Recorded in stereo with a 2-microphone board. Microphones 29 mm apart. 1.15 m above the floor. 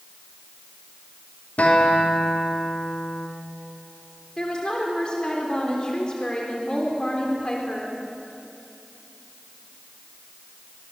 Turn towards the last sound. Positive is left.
turn(degrees=30)  # may be behind; listen again after turning